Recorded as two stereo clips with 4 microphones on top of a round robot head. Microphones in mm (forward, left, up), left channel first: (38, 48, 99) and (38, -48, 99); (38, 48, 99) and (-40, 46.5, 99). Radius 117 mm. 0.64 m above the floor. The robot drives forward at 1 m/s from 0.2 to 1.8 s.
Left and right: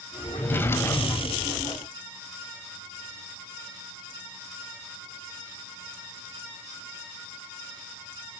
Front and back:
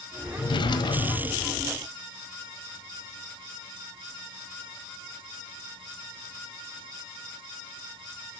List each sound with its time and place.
0.3 s a drawer: 20° left, 2 m; by 1.5 s 40° left, 1.1 m